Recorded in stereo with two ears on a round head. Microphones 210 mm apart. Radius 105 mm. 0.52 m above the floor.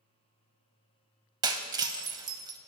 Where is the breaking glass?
20° right (ahead or behind), 0.5 m.